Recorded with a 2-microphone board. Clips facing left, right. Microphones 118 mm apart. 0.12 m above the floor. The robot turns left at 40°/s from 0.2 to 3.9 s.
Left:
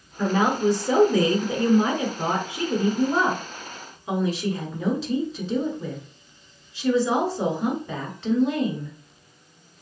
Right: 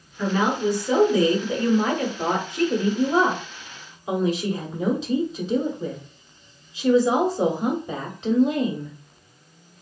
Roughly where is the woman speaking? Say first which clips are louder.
Left 1 dB; left.